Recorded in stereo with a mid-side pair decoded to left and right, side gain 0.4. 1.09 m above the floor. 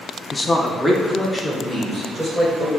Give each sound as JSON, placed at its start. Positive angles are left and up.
{"t": 0.3, "sound": "a man speaking", "azimuth_deg": 30, "distance_m": 0.6}